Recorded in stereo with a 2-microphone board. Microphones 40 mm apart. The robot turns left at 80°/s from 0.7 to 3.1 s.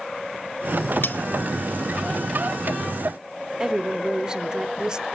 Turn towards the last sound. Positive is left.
turn(degrees=-20)  # may be behind; listen again after turning